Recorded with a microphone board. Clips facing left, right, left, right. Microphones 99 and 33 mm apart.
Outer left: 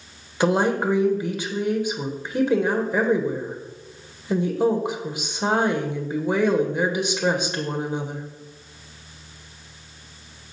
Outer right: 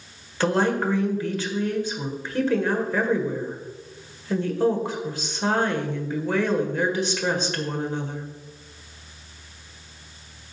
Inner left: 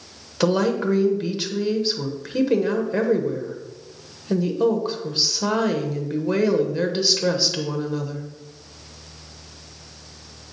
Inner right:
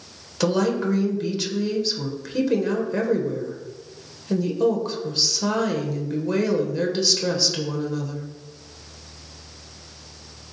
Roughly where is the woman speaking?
Centre.